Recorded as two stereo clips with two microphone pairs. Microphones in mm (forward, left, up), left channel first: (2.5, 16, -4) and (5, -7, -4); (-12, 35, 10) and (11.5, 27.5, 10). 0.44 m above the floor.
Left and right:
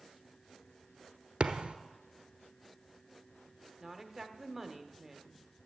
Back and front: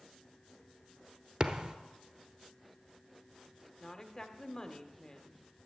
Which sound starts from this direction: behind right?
A woman speaking, at 3.8 s.